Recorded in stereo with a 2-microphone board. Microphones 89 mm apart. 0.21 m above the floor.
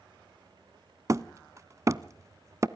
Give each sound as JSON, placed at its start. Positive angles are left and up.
{"t": 1.1, "sound": "hammering", "side_deg": -35, "distance_m": 0.5}